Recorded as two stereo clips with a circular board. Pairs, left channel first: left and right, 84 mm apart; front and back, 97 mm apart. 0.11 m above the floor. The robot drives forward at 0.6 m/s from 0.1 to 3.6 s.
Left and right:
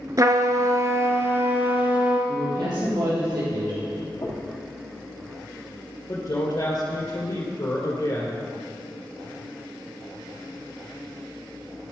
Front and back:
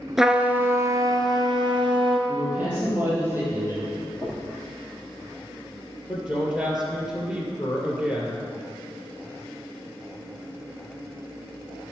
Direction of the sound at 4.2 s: 120° left.